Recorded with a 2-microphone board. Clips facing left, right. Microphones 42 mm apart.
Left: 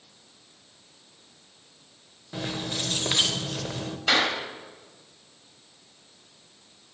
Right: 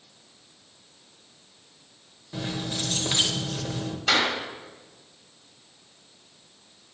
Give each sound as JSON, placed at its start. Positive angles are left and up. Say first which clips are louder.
{"t": 2.3, "sound": "keys jangling", "louder": "even", "side_deg": 15, "distance_m": 0.5}
{"t": 4.1, "sound": "a clap", "louder": "even", "side_deg": 15, "distance_m": 1.7}